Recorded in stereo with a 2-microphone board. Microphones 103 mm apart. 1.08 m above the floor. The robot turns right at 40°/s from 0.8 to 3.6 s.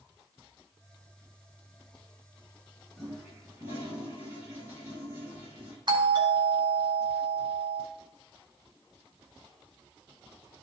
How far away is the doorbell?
About 1.8 m.